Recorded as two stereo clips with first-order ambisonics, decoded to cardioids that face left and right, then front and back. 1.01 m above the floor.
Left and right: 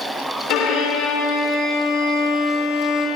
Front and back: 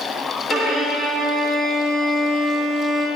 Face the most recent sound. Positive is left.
turn(degrees=75)